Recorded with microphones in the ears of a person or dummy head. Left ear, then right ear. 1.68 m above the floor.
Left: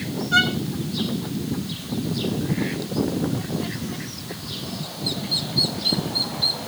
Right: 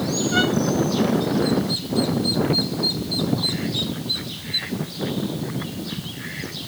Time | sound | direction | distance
0.3 | a violin | 10° left (ahead or behind) | 1.0 m